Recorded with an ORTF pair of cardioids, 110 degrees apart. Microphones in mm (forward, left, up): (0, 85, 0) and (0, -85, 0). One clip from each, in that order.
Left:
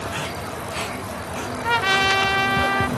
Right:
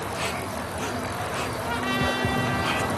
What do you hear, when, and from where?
1.6 s a trumpet: 50° left, 1.3 m